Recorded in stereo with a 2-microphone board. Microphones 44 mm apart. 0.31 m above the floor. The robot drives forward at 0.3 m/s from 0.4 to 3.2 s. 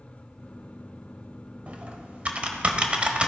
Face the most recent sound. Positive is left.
turn(degrees=-30)  # may be behind; listen again after turning